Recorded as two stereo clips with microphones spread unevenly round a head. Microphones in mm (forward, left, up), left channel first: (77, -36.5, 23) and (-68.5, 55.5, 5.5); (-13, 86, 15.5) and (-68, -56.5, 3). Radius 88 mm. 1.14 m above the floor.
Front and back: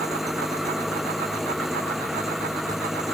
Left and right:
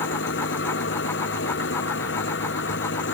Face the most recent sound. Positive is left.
turn(degrees=60)